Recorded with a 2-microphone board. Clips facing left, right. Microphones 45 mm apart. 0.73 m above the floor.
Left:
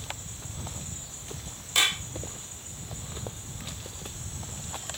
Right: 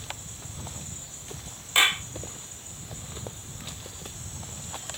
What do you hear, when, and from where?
1.8 s a clap: 30° right (ahead or behind)